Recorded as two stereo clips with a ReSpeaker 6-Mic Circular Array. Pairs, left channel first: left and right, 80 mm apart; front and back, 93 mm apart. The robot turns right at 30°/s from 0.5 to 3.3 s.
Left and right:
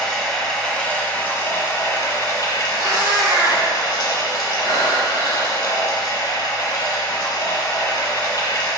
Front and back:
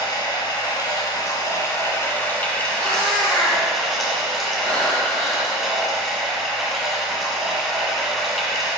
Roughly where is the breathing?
Ahead right.